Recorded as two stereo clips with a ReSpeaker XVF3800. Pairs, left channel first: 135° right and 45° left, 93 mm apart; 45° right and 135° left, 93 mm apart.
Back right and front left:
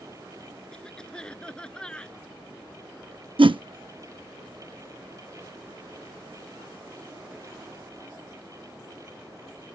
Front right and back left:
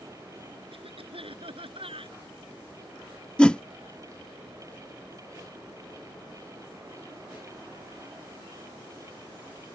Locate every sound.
0.7 s a cough: 145° left
3.4 s a whoosh: 35° left